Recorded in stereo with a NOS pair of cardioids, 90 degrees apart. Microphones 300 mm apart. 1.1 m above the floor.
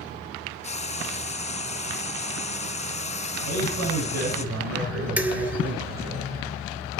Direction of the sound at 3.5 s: 60° right.